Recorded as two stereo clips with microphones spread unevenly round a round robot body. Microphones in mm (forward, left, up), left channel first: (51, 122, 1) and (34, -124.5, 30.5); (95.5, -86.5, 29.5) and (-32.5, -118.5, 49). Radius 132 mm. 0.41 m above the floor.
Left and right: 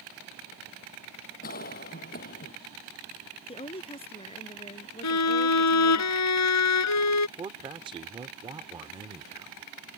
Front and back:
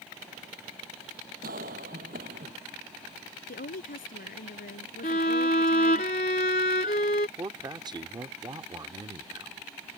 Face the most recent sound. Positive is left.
turn(degrees=-150)